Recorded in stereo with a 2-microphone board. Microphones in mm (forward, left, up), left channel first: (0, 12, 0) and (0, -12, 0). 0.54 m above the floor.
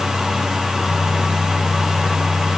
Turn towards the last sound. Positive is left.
No sound to turn to.